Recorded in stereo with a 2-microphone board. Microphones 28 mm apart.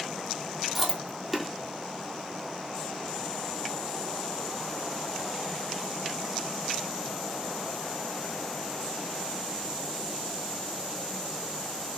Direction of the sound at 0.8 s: 10° right (ahead or behind).